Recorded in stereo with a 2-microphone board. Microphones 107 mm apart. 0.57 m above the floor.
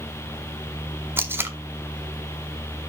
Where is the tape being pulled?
20° right (ahead or behind), 0.8 m.